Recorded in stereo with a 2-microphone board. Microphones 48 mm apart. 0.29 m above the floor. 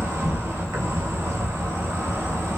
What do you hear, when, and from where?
0.0 s an insect: 80° right, 1.2 m